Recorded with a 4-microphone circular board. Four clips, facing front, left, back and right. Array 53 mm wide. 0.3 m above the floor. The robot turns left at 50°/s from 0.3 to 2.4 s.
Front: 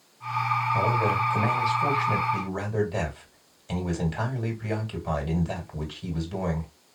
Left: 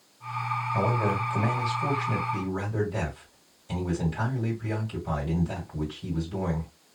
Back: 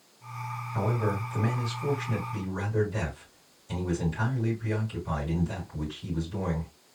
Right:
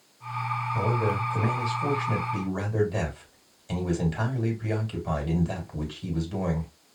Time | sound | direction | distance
0.7 | a man speaking | 60° left | 2 m